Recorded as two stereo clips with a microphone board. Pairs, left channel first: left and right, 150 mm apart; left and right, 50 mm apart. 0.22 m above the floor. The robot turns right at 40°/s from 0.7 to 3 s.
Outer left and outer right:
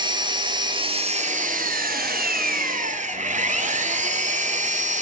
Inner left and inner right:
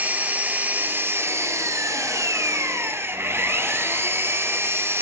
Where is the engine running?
150° right, 1.0 m; by 5.0 s 55° right, 1.0 m.